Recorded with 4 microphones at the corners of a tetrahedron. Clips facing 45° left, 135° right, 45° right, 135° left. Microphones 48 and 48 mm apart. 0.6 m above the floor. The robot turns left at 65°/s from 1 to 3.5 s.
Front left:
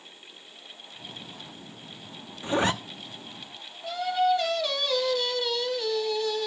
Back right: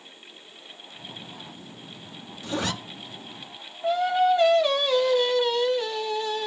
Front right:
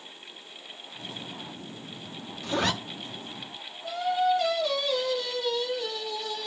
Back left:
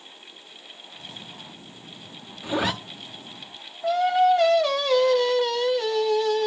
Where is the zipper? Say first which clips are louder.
Front left 4 dB, back left 2 dB; 80° left, 0.6 m; by 2.7 s 60° left, 0.6 m.